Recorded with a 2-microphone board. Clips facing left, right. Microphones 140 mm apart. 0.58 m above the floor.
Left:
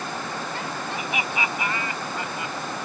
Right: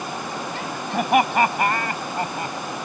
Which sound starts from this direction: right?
Laughter, at 0.9 s.